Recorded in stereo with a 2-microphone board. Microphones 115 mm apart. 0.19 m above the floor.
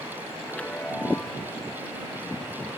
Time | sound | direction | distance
0.5 | a chime | 10° left (ahead or behind) | ?